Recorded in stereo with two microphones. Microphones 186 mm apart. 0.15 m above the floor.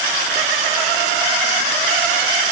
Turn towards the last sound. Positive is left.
No sound to turn to.